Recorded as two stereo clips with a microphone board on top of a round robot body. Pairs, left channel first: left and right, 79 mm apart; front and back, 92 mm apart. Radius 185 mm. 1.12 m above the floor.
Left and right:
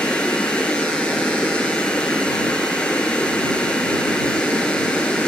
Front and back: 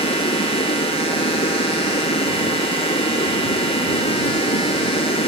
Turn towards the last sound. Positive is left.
turn(degrees=10)